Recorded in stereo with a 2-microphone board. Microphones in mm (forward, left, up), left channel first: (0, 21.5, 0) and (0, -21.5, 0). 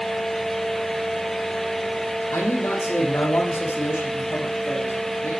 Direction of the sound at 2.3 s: 75° left (ahead or behind).